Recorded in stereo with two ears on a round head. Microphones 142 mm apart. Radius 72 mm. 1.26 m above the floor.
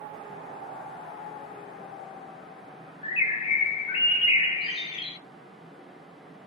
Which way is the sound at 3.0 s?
35° left (ahead or behind).